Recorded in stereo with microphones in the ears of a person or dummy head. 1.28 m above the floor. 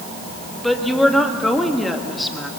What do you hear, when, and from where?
0.6 s a woman speaking: 5° left (ahead or behind), 1.6 m